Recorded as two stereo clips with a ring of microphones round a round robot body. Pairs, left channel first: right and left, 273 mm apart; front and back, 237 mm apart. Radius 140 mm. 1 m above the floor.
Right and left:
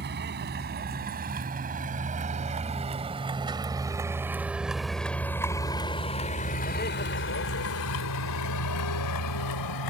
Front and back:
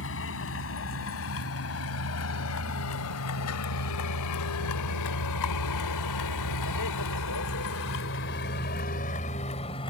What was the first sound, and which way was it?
A vehicle, 35° left.